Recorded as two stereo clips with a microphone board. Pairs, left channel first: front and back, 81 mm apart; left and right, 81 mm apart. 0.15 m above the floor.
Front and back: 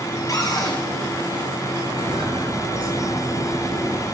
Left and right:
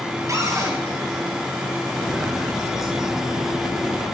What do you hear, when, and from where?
0.3 s a cupboard door: 40° right, 3 m
1.9 s footsteps: 170° right, 5 m; by 4.0 s straight behind, 7 m